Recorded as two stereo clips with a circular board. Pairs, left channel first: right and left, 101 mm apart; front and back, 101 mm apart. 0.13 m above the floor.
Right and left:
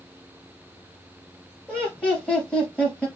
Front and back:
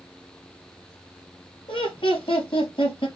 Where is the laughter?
10° right, 2.5 m.